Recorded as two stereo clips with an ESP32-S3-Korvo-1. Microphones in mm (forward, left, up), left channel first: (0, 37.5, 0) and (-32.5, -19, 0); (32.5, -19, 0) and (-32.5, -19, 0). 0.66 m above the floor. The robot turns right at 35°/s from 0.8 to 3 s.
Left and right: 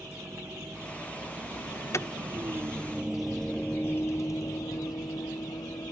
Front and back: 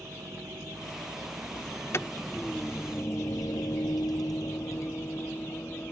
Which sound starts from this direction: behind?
A vehicle, at 0.0 s.